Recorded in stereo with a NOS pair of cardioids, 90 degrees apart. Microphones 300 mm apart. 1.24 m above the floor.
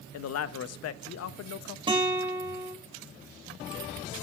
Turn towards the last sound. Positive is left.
turn(degrees=-15)